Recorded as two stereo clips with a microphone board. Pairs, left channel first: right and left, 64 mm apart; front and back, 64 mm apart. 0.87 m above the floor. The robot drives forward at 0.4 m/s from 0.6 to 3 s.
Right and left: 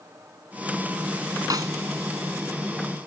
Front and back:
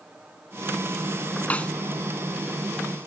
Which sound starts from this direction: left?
A snare drum, at 1.5 s.